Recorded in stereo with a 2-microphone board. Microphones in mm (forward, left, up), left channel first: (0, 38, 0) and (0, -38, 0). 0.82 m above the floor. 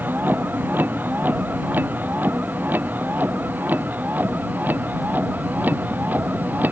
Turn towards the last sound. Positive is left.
turn(degrees=-25)  # may be behind; listen again after turning